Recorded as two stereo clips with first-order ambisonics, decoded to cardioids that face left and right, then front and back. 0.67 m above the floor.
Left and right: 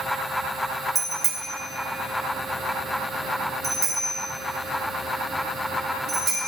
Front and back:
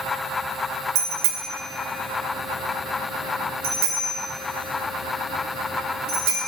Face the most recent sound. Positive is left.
turn(degrees=-165)